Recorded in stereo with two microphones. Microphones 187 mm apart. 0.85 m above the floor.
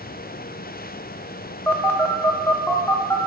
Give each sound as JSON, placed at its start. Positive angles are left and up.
{"t": 1.7, "sound": "a phone buzzing", "side_deg": 10, "distance_m": 0.6}